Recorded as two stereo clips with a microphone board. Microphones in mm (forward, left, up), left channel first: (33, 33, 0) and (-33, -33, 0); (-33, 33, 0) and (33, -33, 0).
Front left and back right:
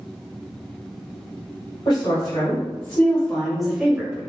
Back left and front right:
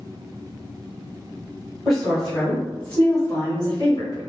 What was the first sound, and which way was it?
A woman speaking, 40° left.